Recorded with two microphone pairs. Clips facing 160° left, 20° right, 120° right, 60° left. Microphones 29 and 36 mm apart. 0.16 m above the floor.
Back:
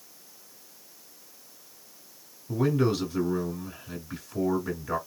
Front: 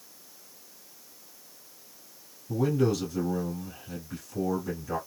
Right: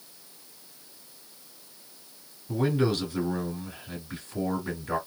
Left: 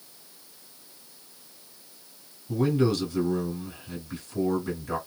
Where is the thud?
I don't hear a thud.